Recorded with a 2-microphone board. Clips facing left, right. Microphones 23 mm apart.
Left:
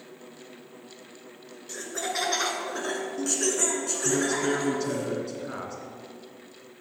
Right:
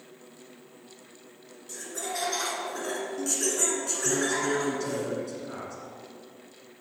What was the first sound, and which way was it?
Laughter, 30° left (ahead or behind).